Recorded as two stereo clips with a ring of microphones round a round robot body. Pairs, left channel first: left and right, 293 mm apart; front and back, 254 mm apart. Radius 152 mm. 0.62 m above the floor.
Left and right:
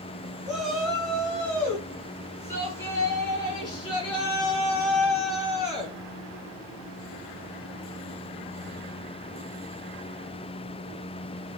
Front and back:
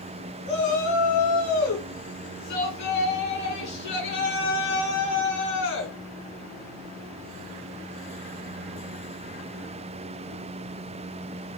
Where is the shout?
Straight ahead, 5.5 m; by 5.9 s 20° left, 7.5 m.